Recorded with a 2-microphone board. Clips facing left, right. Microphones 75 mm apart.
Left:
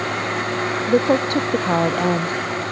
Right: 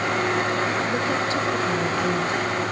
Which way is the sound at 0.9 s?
55° left (ahead or behind).